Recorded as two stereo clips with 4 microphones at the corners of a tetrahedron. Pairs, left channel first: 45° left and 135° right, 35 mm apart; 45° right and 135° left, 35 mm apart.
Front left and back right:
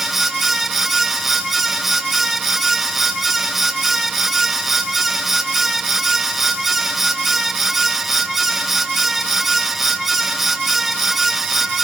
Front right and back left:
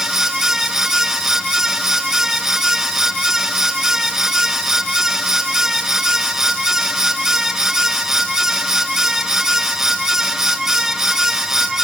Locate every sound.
Only background noise.